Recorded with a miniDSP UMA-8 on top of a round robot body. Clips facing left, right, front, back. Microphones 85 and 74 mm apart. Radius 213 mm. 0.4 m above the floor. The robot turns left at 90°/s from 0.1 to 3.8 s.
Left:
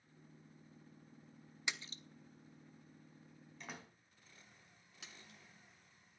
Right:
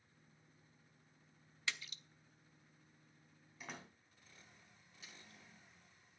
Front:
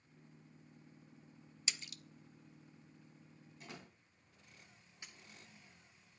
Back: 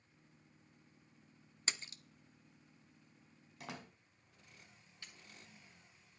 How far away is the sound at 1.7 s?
About 1.0 m.